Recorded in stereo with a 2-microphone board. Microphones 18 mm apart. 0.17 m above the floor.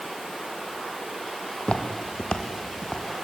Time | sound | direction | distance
1.6 | footsteps | 80° left | 2.5 m